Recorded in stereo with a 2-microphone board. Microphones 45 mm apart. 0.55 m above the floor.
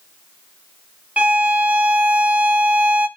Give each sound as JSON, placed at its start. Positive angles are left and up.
{"t": 1.2, "sound": "a violin", "side_deg": -35, "distance_m": 0.8}